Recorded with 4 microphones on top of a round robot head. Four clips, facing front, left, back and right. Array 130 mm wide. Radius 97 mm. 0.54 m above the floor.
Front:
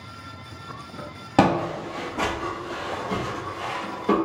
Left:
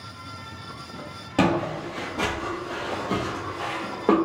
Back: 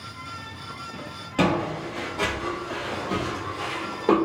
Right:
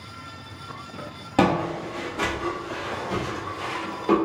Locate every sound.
1.4 s footsteps: 10° right, 0.9 m; by 4.2 s 115° left, 1.3 m